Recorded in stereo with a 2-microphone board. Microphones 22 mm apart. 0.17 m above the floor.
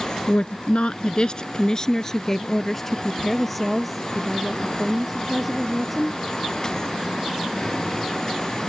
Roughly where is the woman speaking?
Left.